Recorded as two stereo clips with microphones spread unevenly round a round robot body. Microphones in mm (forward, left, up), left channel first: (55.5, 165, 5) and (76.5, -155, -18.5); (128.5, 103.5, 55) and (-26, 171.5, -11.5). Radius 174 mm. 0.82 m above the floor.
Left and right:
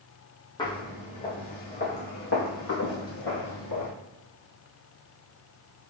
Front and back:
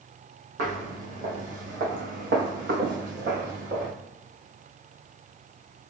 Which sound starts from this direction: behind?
Footsteps, at 0.6 s.